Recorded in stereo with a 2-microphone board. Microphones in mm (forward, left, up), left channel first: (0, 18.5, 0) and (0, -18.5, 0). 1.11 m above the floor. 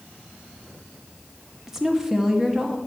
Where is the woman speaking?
10° right (ahead or behind), 0.8 m.